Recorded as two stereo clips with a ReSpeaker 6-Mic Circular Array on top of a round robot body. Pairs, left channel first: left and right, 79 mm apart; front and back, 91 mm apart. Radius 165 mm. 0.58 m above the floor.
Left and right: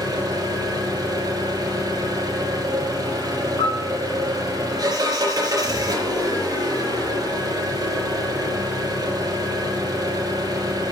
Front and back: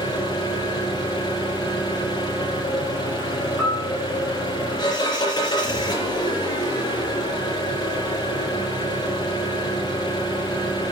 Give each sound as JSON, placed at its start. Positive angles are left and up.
{"t": 0.0, "sound": "an engine running", "azimuth_deg": -50, "distance_m": 6.0}
{"t": 3.6, "sound": "a piano", "azimuth_deg": 90, "distance_m": 6.0}